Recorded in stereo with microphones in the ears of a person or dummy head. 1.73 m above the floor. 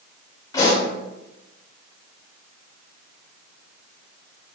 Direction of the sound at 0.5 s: 15° left (ahead or behind).